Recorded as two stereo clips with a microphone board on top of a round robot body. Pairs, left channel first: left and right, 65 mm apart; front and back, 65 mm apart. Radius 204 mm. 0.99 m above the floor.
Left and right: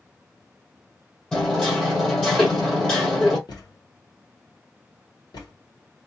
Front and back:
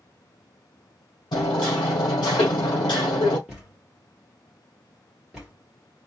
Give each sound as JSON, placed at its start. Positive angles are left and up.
{"t": 1.3, "sound": "hammering", "azimuth_deg": 15, "distance_m": 1.2}
{"t": 3.5, "sound": "a thud", "azimuth_deg": 100, "distance_m": 1.6}